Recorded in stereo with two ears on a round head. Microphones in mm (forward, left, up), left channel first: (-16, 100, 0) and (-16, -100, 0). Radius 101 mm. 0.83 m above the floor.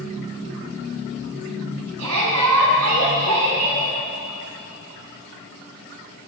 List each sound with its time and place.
2.0 s a shout: 80° right, 6 m; by 3.9 s 85° right, 6 m